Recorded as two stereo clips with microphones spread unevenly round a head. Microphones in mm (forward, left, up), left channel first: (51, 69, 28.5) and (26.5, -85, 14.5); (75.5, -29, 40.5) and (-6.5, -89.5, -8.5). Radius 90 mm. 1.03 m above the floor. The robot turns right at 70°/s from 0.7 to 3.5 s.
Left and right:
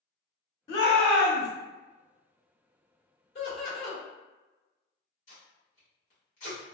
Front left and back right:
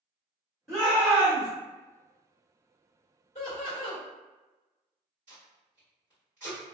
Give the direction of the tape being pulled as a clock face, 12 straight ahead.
8 o'clock.